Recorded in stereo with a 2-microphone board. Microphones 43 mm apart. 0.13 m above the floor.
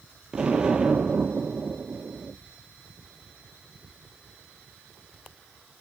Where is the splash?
I don't hear a splash.